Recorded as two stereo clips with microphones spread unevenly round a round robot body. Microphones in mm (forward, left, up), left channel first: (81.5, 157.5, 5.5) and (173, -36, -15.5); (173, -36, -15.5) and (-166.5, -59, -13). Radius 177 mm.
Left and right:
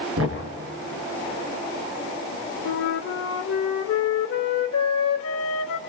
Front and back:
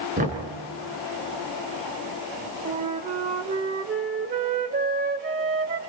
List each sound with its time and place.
0.2 s knocking: 110° right, 4.5 m
2.6 s a flute: 120° left, 1.2 m